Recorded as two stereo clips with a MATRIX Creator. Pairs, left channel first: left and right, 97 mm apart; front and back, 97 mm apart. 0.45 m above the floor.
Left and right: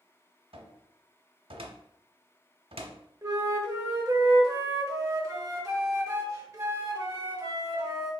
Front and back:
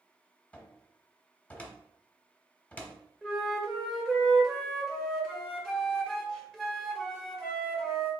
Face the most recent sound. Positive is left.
turn(degrees=-75)